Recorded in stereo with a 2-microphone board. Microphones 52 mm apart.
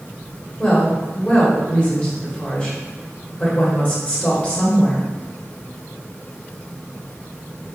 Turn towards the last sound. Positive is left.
turn(degrees=30)  # may be behind; listen again after turning